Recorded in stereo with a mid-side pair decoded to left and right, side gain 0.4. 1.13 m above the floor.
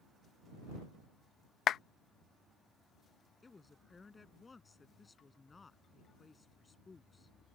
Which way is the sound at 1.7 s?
70° left.